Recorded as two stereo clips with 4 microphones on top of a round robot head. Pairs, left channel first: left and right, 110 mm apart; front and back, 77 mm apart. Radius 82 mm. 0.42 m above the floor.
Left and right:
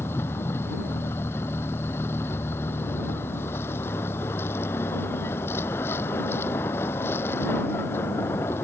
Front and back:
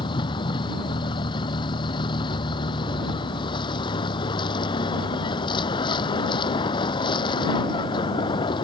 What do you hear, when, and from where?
0.0 s a vehicle: 15° left